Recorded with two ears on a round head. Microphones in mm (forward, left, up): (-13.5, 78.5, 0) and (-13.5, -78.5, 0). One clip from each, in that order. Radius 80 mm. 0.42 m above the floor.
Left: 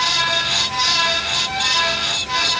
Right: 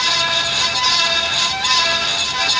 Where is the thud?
I don't hear a thud.